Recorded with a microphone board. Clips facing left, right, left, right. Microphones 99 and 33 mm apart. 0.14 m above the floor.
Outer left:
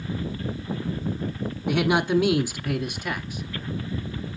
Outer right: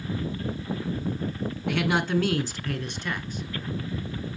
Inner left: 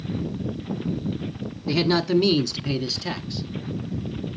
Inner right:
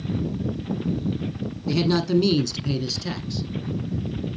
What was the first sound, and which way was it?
A man speaking, 15° left (ahead or behind).